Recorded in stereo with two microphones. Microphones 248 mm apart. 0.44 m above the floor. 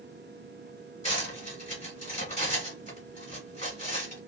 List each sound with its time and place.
1.0 s cutlery clinking: 30° left (ahead or behind), 1.5 m